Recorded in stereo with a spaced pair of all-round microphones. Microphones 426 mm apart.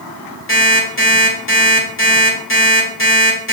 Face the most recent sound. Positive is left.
turn(degrees=25)  # may be behind; listen again after turning